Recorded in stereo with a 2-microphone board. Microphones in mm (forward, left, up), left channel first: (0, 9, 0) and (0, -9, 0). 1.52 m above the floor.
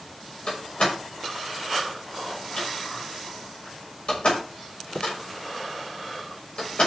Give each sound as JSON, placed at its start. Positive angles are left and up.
{"t": 0.5, "sound": "a door slam", "side_deg": 70, "distance_m": 6.0}